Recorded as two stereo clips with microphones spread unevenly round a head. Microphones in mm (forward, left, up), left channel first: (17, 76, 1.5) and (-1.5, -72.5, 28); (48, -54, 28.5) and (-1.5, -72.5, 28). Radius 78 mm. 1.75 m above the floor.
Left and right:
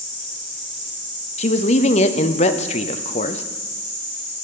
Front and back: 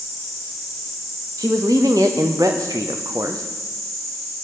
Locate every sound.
0.0 s an insect: 105° left, 6 m
1.4 s a man speaking: 135° left, 0.5 m